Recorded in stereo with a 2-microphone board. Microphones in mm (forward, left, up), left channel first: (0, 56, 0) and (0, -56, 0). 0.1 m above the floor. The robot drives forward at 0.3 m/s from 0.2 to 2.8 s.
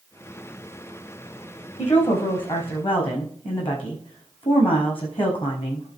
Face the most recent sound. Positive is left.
turn(degrees=50)  # may be behind; listen again after turning